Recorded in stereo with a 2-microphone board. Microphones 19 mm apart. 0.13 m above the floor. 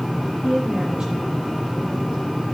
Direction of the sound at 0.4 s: 55° right (ahead or behind).